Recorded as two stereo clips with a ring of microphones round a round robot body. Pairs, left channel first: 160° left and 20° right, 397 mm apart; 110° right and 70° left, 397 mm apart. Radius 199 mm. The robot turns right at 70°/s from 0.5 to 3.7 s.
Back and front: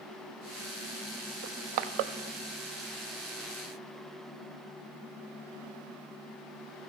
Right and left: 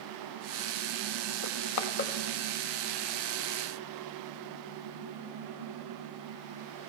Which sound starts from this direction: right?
Crushing, at 1.4 s.